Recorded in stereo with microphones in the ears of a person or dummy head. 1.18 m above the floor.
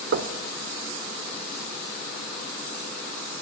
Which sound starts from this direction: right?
Knocking, at 0.1 s.